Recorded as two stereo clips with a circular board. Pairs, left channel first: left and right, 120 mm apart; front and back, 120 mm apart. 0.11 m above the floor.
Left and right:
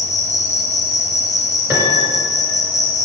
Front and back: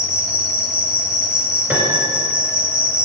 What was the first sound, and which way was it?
An insect, 100° left.